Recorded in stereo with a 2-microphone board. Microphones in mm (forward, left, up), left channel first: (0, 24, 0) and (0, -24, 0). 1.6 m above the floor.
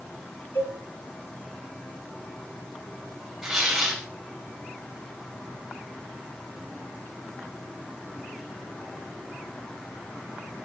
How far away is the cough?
No cough in this recording.